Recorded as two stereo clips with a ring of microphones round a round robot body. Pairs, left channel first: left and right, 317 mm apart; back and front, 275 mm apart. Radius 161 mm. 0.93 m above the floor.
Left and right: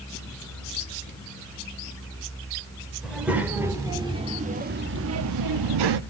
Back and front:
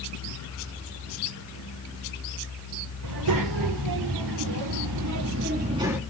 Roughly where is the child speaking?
Ahead.